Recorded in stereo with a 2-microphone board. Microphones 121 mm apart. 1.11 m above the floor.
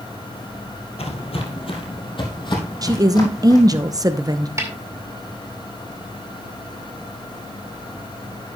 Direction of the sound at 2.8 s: 30° right (ahead or behind).